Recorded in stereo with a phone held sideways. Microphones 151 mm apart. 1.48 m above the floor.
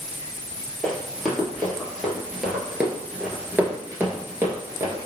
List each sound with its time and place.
0.8 s running footsteps: 5° left (ahead or behind), 2 m; by 5.1 s 20° right (ahead or behind), 1.6 m